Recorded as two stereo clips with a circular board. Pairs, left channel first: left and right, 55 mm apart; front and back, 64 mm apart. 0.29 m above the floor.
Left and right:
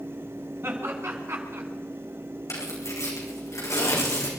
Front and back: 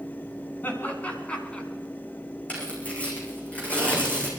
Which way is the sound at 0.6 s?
55° right.